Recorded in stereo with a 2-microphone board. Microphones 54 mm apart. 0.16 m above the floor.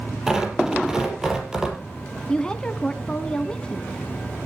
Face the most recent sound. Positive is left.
turn(degrees=15)  # may be behind; listen again after turning